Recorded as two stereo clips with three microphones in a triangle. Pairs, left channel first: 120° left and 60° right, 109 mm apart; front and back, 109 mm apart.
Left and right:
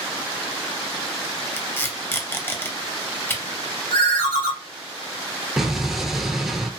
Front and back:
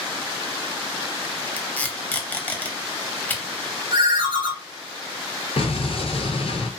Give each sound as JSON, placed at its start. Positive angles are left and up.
{"t": 1.6, "sound": "tape being pulled", "azimuth_deg": 60, "distance_m": 0.5}
{"t": 3.9, "sound": "a ringtone", "azimuth_deg": 145, "distance_m": 0.7}
{"t": 5.6, "sound": "an explosion", "azimuth_deg": 25, "distance_m": 0.7}